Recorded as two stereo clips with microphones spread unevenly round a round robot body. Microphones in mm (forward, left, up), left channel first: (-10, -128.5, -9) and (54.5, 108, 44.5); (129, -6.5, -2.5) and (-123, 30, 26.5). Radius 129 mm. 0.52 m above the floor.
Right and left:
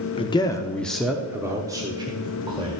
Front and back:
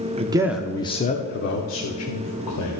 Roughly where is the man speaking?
Behind right.